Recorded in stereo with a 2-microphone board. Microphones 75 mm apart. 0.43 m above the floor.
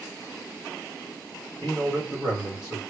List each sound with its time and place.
1.6 s a man speaking: 35° left (ahead or behind), 2 m